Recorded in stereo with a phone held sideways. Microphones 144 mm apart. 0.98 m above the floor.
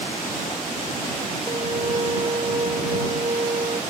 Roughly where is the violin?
Right.